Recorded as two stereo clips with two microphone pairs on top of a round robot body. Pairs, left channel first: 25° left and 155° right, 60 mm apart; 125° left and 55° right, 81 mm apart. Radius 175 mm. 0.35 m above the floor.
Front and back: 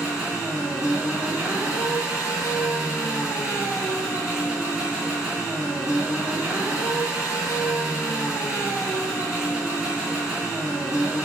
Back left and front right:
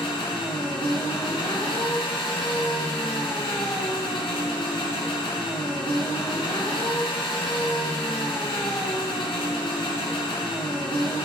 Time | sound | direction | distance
0.0 | an engine running | 130° left | 4.5 m